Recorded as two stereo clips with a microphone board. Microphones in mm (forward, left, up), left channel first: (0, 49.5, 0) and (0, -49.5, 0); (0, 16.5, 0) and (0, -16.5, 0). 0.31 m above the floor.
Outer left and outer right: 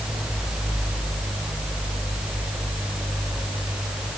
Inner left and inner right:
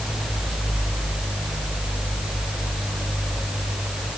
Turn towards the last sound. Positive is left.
No sound to turn to.